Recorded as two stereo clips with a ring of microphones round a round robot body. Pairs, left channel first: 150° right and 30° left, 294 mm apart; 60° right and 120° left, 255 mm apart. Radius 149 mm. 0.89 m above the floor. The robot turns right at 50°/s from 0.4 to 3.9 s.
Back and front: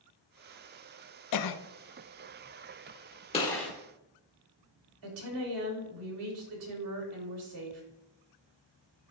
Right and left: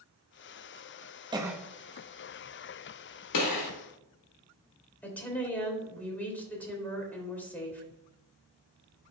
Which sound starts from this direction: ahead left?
A woman speaking, at 5.0 s.